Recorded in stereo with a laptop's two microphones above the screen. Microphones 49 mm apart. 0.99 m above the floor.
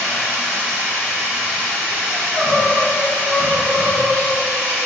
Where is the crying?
15° left (ahead or behind), 1.1 m.